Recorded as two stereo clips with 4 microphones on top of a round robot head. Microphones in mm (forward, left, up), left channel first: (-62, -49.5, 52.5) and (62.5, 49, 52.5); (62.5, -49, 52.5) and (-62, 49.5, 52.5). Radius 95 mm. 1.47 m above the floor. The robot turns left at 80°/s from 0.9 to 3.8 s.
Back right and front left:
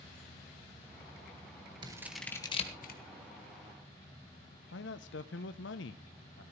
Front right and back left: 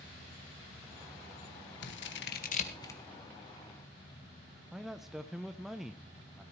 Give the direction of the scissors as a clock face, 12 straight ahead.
1 o'clock.